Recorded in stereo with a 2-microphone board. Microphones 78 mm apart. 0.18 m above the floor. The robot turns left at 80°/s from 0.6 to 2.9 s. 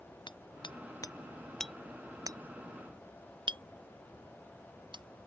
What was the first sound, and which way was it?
Hammering, 90° left.